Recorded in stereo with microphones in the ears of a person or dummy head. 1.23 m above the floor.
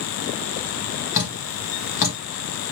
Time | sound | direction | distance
1.1 | dripping | 40° left (ahead or behind) | 1.8 m